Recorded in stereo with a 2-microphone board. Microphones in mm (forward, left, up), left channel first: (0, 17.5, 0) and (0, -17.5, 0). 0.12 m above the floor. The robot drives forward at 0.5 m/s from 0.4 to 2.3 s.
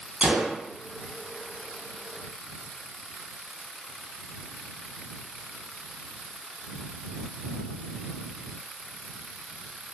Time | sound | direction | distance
0.2 | a gunshot | 35° right (ahead or behind) | 0.5 m